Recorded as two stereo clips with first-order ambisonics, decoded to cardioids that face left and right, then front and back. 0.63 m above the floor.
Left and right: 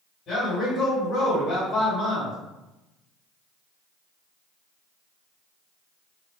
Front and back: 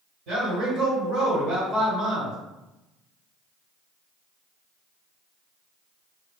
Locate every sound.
0.3 s a man speaking: 145° left, 1.7 m